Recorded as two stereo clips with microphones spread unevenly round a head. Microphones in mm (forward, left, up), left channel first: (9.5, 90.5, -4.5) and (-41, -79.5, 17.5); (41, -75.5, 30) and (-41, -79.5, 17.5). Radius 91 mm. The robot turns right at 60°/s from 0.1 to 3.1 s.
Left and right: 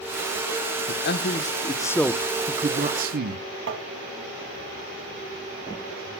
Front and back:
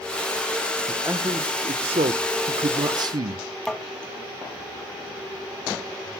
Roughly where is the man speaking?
Left.